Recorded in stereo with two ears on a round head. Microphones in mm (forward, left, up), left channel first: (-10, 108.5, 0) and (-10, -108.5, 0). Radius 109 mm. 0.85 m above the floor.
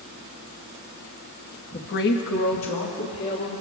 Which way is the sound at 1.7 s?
30° left (ahead or behind).